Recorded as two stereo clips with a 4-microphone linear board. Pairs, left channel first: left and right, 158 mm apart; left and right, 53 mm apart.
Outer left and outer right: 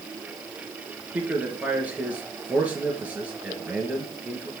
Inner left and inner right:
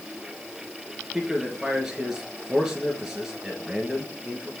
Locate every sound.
1.1 s a man speaking: 10° right (ahead or behind), 3 m